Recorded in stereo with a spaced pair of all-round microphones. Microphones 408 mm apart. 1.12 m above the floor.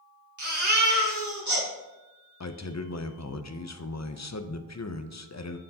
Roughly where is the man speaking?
Left.